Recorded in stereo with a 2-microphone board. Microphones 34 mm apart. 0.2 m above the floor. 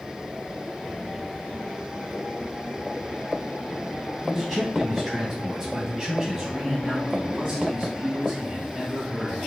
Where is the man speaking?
5° right (ahead or behind), 1.2 m; by 9.5 s 15° right (ahead or behind), 2.5 m.